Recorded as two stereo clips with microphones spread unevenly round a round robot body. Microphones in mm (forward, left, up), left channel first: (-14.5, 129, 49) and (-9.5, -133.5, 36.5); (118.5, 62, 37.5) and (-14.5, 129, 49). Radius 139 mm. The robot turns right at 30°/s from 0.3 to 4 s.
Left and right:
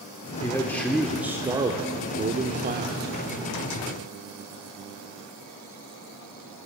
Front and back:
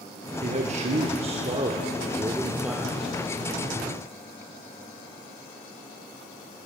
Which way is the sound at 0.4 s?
165° left.